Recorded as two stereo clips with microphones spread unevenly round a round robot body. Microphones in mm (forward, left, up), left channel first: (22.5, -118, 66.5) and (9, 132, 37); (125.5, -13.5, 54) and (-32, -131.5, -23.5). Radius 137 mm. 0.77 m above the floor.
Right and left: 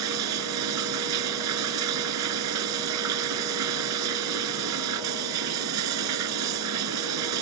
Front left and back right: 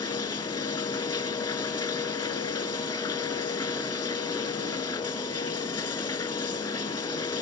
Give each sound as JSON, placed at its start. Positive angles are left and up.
{"t": 0.0, "sound": "running water", "azimuth_deg": 110}